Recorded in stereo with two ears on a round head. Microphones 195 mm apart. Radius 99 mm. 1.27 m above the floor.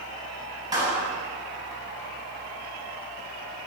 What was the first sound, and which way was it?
A clap, 15° right (ahead or behind).